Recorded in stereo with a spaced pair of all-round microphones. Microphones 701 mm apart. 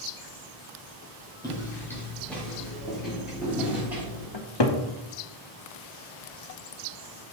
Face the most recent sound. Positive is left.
turn(degrees=40)  # may be behind; listen again after turning